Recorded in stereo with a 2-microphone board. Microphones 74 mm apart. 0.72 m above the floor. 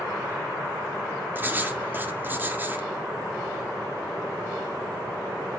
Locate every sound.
1.4 s writing: 25° right (ahead or behind), 1.5 m